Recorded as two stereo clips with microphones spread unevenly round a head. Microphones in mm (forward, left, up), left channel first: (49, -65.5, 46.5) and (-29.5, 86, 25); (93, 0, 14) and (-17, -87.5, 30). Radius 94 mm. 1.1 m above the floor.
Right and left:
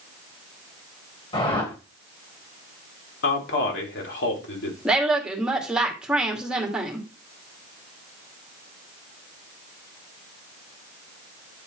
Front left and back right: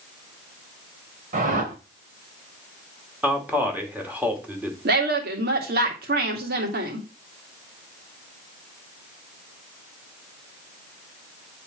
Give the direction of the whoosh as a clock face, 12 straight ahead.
4 o'clock.